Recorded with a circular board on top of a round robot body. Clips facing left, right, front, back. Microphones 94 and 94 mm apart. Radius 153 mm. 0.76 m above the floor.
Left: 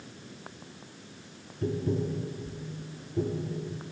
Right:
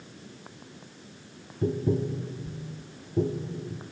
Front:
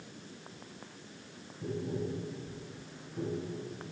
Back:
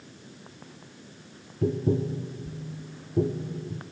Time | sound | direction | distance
1.6 | tapping | 160° right | 0.6 m